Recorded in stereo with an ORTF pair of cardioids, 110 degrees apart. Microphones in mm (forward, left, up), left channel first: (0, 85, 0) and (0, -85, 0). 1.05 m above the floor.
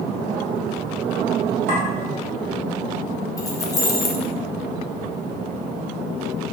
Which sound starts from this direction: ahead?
Keys jangling, at 3.4 s.